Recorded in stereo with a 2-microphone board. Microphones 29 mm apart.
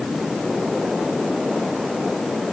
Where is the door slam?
I don't hear a door slam.